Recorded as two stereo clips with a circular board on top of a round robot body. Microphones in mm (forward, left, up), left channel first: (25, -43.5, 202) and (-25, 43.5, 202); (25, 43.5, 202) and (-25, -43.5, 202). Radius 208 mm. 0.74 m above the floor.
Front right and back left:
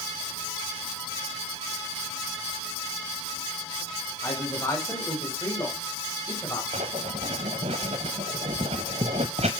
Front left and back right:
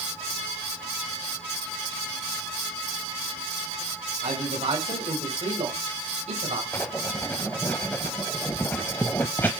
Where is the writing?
130° left, 0.6 m.